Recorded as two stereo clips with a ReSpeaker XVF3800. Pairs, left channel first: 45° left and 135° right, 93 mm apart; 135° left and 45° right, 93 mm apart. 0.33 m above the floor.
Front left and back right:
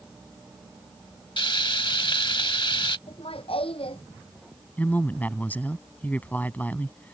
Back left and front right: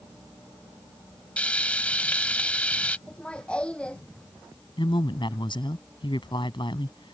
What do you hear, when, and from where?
1.4 s frying: 60° left
3.1 s laughter: 55° left
4.8 s a woman speaking: 115° left